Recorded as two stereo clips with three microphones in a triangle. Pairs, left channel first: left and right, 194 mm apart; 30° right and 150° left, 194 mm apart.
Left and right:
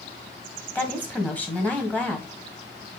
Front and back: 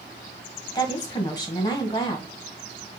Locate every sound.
0.8 s a woman speaking: 15° left, 1.3 m